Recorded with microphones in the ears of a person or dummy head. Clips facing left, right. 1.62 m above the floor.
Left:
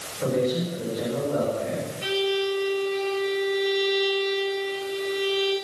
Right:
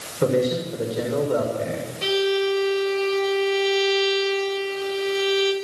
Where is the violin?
80° right, 5.5 m.